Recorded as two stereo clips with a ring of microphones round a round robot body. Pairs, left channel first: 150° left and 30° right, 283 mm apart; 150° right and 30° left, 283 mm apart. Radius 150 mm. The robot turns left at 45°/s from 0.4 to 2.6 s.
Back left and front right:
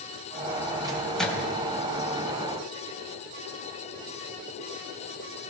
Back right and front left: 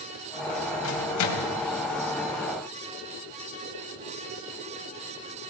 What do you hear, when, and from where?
0.8 s a microwave: 105° right, 3 m; by 1.5 s 135° right, 3 m